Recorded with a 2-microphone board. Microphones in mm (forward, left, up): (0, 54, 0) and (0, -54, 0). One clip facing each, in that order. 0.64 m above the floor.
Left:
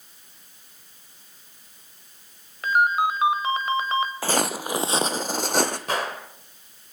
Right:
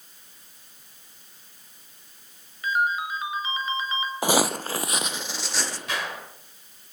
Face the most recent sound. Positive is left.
turn(degrees=45)  # may be behind; listen again after turning